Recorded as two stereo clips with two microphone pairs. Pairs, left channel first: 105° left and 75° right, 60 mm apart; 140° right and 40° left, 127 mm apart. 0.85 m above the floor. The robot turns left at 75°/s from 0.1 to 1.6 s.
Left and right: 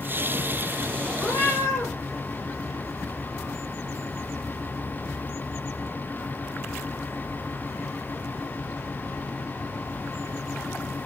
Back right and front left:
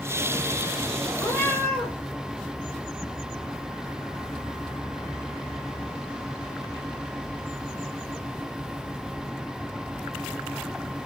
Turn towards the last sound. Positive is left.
turn(degrees=135)